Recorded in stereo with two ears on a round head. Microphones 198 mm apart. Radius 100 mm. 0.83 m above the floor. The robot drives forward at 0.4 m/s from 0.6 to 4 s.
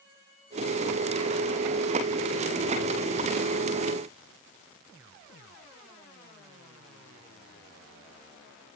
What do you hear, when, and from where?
Only background noise.